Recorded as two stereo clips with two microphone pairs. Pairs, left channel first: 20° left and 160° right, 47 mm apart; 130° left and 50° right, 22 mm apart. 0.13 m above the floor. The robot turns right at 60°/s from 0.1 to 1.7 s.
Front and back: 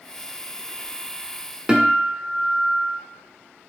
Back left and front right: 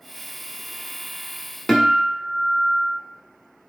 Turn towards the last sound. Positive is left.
turn(degrees=-170)